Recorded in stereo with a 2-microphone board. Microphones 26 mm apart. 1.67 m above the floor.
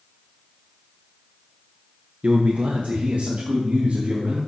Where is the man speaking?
55° right (ahead or behind), 0.9 m; by 4.4 s 85° right, 3 m.